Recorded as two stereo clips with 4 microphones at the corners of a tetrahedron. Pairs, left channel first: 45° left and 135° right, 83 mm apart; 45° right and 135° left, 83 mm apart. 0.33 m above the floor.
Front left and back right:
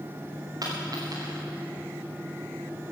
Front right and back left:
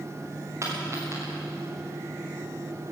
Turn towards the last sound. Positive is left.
turn(degrees=-170)